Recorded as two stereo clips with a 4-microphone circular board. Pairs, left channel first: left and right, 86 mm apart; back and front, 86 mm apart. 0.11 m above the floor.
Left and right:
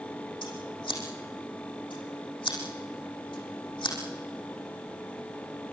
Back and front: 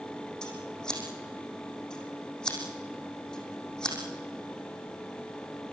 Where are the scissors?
100° left, 6.5 m.